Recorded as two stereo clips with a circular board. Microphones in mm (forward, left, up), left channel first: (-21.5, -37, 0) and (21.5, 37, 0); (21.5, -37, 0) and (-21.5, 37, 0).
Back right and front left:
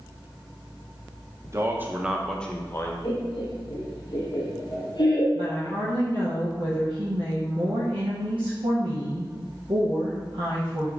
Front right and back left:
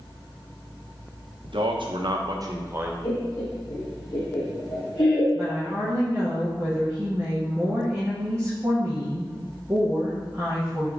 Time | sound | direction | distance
1.4 | a man speaking | 110° left | 0.8 m
3.0 | laughter | 85° right | 1.3 m
5.3 | a woman speaking | 60° left | 1.1 m